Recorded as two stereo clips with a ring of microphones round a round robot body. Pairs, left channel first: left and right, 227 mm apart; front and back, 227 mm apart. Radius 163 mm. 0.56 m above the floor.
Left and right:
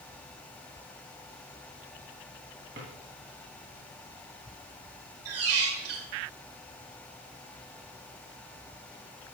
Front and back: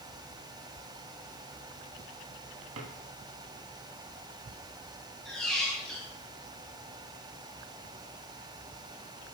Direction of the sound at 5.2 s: 90° right.